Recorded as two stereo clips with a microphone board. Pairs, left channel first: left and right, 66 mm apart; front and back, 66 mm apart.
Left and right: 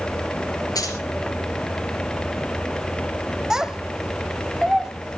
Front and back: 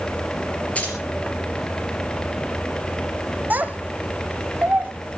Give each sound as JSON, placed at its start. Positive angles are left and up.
{"t": 0.8, "sound": "keys jangling", "azimuth_deg": 70, "distance_m": 3.5}
{"t": 3.5, "sound": "a child speaking", "azimuth_deg": -160, "distance_m": 0.8}